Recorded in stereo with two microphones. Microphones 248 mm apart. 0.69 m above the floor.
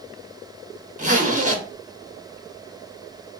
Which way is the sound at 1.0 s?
30° right (ahead or behind).